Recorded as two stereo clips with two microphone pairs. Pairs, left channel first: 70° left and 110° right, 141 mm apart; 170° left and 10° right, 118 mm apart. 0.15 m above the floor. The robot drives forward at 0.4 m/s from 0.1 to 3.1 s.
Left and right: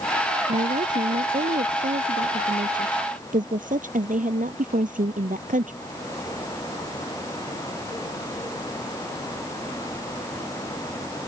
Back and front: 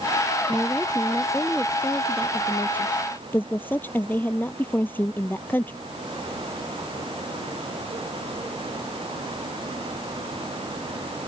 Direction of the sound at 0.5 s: 100° right.